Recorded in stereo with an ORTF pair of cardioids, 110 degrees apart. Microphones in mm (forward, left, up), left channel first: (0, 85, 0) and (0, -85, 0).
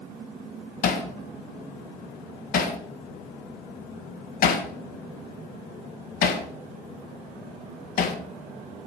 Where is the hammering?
60° left, 1.5 m.